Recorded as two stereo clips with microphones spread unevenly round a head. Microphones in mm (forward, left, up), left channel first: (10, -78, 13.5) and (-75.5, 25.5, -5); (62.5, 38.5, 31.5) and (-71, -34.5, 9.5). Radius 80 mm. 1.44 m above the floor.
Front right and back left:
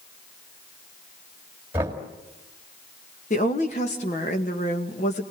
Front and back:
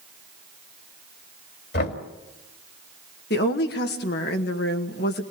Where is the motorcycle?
I don't hear a motorcycle.